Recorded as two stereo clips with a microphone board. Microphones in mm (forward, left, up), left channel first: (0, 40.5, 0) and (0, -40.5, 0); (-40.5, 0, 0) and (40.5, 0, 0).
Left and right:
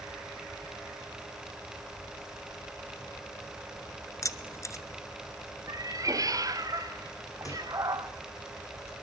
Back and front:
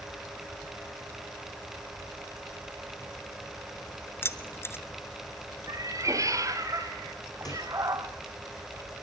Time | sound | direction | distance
4.2 | keys jangling | 125° left | 1.2 m
5.7 | a cat meowing | 45° right | 1.5 m
7.5 | a microwave | 140° left | 7.5 m